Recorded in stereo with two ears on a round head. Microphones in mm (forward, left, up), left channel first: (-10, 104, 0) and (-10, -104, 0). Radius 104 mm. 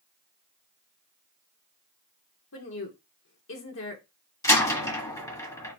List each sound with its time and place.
2.5 s a woman speaking: 60° left (ahead or behind), 2.5 m
4.4 s a door slam: 15° left (ahead or behind), 1.6 m